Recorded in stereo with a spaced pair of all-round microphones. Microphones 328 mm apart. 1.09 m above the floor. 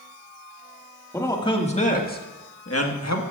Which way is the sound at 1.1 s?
10° left (ahead or behind).